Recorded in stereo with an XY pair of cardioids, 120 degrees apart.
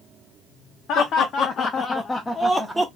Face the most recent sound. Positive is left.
turn(degrees=-15)